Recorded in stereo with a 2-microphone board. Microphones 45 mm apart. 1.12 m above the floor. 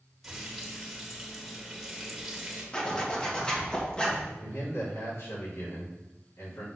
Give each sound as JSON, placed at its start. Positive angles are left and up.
{"t": 0.2, "sound": "frying", "side_deg": -5, "distance_m": 1.8}
{"t": 2.7, "sound": "a zipper", "side_deg": 15, "distance_m": 1.3}
{"t": 4.4, "sound": "a man speaking", "side_deg": 80, "distance_m": 3.5}